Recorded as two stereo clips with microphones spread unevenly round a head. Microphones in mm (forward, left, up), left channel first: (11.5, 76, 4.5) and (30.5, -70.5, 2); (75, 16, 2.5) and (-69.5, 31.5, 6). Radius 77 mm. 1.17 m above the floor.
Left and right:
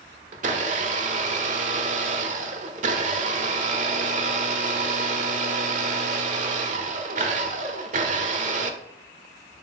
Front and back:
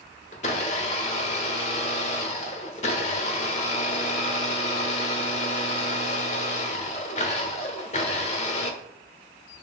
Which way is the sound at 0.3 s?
50° right.